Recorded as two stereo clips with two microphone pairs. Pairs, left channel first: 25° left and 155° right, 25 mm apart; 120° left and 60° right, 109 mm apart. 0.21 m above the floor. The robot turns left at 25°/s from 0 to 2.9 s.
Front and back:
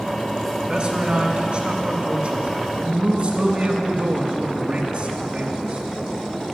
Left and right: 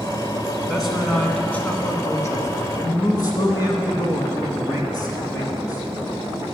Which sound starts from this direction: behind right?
A man speaking, at 0.7 s.